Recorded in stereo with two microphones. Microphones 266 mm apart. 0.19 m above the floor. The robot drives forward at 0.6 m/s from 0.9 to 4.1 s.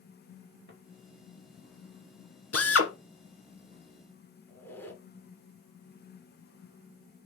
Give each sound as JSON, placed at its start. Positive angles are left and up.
{"t": 0.7, "sound": "footsteps", "side_deg": -40, "distance_m": 3.0}
{"t": 2.5, "sound": "a drill", "side_deg": 60, "distance_m": 1.2}
{"t": 4.5, "sound": "a squeak", "side_deg": 10, "distance_m": 1.7}